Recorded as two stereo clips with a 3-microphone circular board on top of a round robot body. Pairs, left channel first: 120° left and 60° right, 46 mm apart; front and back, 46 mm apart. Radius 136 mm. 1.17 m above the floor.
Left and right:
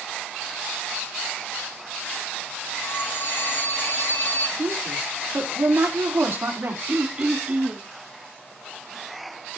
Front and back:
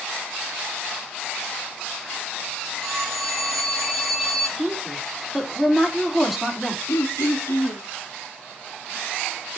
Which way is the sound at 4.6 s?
90° right.